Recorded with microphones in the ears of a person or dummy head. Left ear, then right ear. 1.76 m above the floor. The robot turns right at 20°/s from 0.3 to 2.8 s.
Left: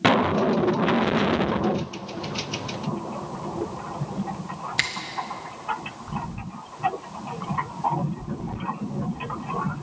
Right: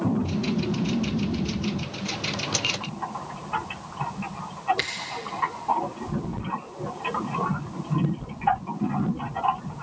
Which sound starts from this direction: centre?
A finger snap, at 4.8 s.